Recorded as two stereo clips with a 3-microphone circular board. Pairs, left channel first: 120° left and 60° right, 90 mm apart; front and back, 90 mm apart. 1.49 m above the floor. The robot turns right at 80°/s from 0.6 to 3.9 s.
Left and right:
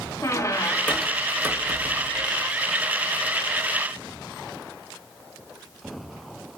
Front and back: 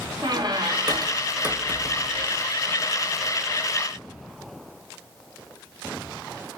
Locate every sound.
0.2 s a squeak: 165° left, 0.5 m; by 2.5 s 45° right, 0.5 m